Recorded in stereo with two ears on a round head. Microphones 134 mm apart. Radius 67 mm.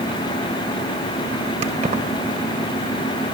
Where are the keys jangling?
50° right (ahead or behind), 2.5 m.